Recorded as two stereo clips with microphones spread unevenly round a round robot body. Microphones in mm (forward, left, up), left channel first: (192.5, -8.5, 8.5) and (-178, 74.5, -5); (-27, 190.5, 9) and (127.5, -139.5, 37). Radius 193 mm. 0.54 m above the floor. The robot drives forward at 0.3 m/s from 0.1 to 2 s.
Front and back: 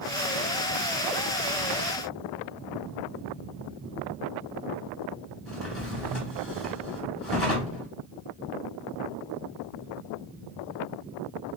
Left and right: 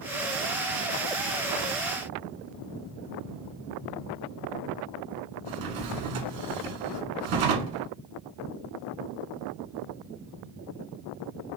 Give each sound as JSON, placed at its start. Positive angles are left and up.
{"t": 5.5, "sound": "a drawer", "azimuth_deg": -100, "distance_m": 0.6}